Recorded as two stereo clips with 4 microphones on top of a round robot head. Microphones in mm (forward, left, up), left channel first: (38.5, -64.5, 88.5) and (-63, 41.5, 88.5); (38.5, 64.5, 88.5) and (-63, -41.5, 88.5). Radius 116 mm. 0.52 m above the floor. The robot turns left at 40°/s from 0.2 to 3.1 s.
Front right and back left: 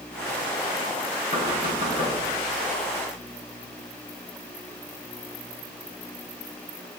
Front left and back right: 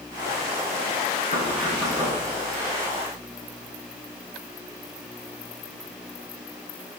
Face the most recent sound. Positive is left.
turn(degrees=-65)